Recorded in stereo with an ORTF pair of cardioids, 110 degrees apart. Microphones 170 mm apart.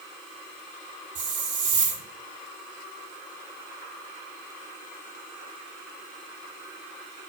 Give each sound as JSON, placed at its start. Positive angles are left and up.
{"t": 1.1, "sound": "a hiss", "azimuth_deg": -50, "distance_m": 3.0}